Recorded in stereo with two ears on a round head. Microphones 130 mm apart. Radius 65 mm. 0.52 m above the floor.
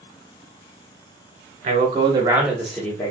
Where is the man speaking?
45° right (ahead or behind), 1.3 m; by 3.1 s 25° left (ahead or behind), 1.0 m.